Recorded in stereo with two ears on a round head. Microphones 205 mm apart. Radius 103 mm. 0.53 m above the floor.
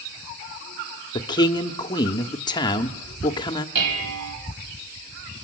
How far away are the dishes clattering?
About 2.5 m.